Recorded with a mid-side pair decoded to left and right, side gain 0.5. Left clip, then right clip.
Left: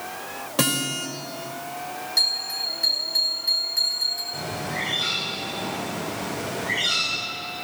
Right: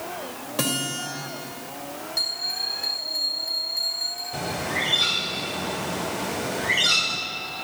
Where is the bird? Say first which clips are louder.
Right 2 dB; 40° right, 6 m.